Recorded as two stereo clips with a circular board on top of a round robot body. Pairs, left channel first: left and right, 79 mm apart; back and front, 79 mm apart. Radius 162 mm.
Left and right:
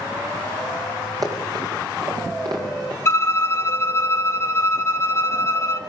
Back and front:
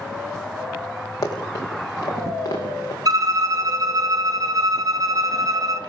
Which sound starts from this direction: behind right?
Running footsteps, at 1.2 s.